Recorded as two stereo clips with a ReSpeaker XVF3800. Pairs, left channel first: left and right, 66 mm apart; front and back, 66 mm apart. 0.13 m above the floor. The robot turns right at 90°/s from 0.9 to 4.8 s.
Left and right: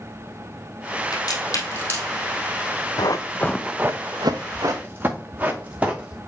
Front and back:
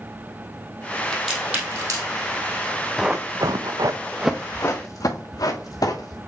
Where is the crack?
75° left, 2.5 m; by 2.1 s 160° left, 2.5 m.